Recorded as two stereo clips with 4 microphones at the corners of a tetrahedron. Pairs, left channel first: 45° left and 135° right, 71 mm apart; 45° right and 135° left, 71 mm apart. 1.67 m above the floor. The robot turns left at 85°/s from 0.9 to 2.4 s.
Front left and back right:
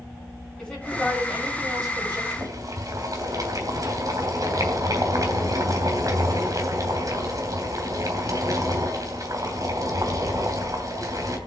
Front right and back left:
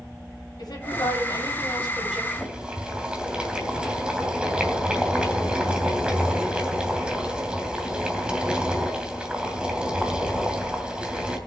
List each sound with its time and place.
0.6 s a woman speaking: 30° right, 8.5 m; by 2.2 s 140° right, 8.5 m
2.3 s boiling: 140° right, 3 m; by 11.4 s 150° right, 3 m